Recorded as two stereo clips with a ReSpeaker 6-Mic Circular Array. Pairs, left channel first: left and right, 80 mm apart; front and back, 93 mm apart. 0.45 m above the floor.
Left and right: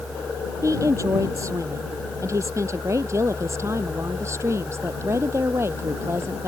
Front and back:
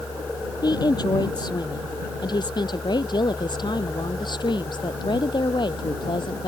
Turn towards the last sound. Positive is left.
turn(degrees=-35)